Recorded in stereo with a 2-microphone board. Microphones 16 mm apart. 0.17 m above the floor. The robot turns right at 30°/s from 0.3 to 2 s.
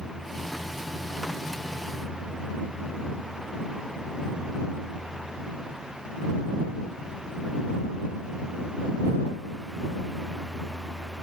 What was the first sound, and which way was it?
Only background noise.